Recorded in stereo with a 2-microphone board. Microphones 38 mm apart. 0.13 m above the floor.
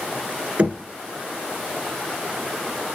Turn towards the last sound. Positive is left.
turn(degrees=-40)  # may be behind; listen again after turning